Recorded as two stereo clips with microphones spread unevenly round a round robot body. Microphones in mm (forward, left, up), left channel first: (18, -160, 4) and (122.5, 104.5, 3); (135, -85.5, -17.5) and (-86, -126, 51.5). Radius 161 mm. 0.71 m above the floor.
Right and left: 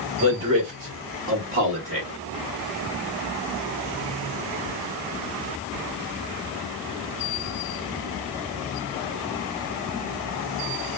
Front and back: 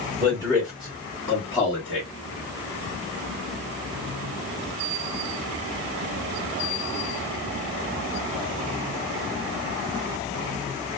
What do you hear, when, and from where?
0.2 s a man speaking: 100° left, 1.5 m; by 2.1 s 40° left, 1.3 m